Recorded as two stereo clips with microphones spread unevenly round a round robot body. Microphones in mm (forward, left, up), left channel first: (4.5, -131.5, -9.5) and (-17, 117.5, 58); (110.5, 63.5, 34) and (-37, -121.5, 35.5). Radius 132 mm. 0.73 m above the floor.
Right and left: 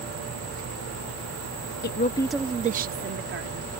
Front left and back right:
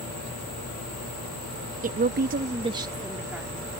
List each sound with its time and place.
1.8 s a woman speaking: 80° right; by 3.7 s 145° left